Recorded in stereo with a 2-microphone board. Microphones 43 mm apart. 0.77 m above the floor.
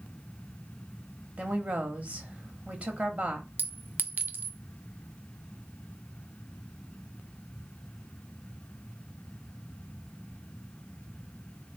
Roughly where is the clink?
Right.